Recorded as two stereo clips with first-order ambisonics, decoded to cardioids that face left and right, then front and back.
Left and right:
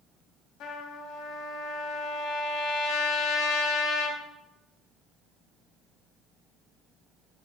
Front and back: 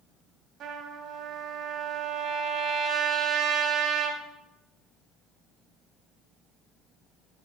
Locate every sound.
0.6 s a trumpet: 130° left, 1.5 m